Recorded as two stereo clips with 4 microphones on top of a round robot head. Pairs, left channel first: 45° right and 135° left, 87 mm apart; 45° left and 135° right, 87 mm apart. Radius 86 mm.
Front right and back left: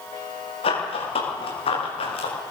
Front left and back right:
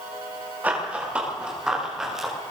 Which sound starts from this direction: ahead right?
Running footsteps, at 0.6 s.